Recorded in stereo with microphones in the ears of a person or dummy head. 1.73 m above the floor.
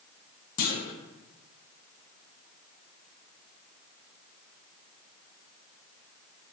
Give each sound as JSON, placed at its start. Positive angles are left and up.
{"t": 0.6, "sound": "a clunk", "side_deg": 45, "distance_m": 0.6}